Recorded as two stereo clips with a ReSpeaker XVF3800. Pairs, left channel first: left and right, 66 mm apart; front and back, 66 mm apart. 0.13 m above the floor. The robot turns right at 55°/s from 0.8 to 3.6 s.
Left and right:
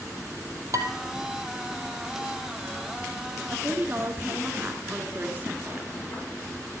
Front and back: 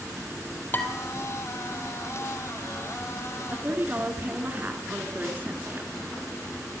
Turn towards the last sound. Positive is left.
turn(degrees=-130)